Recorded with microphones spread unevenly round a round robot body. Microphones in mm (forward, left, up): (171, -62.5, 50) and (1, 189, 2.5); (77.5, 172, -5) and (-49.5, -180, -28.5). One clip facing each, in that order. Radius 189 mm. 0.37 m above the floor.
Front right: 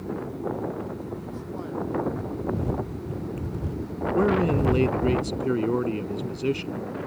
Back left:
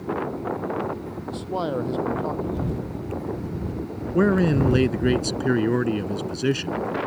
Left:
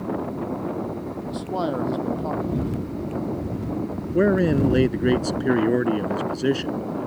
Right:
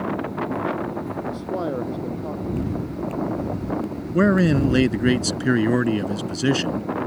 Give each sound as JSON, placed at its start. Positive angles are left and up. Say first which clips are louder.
{"t": 1.3, "sound": "a man speaking", "louder": "back left 10 dB, left 2 dB", "azimuth_deg": 140}
{"t": 4.1, "sound": "a man speaking", "louder": "back left 3 dB, right 1 dB", "azimuth_deg": -170}